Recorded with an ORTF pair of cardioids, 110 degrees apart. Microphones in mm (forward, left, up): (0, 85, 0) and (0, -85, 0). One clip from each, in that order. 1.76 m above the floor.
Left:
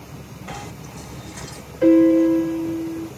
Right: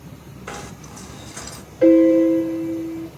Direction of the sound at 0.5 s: 65° right.